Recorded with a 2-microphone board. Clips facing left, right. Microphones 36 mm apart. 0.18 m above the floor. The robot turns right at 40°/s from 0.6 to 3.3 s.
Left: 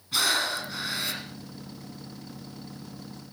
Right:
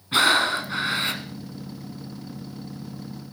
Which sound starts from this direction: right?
Breathing, at 0.1 s.